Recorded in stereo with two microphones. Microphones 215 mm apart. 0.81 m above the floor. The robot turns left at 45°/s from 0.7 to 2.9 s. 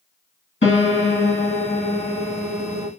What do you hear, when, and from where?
0.6 s a piano: 85° left, 1.5 m; by 2.9 s 15° right, 1.5 m